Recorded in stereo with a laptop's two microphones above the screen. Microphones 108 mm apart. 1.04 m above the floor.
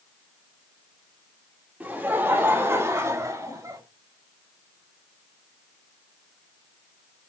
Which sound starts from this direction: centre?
Laughter, at 1.8 s.